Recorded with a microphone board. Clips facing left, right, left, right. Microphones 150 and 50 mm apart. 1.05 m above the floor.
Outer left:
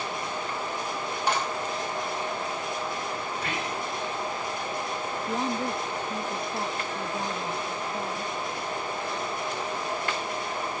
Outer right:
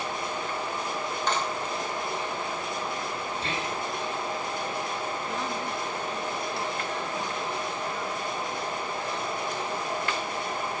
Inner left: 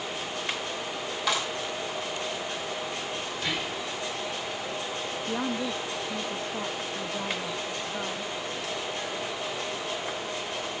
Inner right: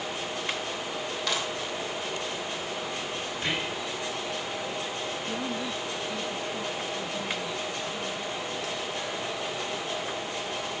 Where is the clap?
10° left (ahead or behind), 5.5 m.